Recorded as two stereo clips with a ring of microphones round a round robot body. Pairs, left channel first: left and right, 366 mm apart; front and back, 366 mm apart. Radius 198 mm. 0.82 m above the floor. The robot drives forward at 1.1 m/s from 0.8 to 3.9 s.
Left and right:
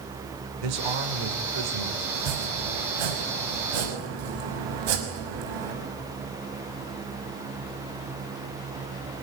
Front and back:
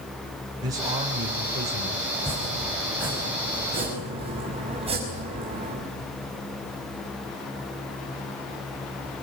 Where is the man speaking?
100° right, 3.5 m; by 2.0 s 120° right, 4 m.